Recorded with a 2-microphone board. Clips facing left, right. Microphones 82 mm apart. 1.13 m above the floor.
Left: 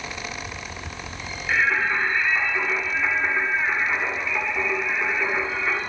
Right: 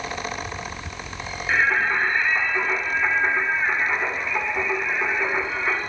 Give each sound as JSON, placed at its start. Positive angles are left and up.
{"t": 1.5, "sound": "singing", "side_deg": -15, "distance_m": 1.5}